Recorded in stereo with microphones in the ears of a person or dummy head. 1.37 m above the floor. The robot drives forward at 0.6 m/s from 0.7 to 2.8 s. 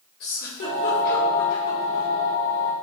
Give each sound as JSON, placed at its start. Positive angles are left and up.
{"t": 0.2, "sound": "a giggle", "side_deg": 55, "distance_m": 1.5}